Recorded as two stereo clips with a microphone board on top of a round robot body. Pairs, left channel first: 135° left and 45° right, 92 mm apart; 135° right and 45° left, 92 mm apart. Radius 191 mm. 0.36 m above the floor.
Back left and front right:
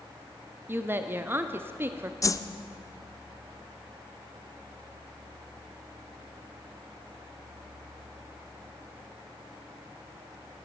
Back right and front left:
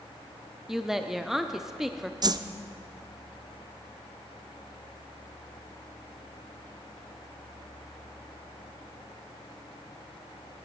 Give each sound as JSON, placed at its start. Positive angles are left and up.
{"t": 0.7, "sound": "a woman speaking", "azimuth_deg": -35, "distance_m": 0.9}
{"t": 2.2, "sound": "a whoosh", "azimuth_deg": 85, "distance_m": 0.6}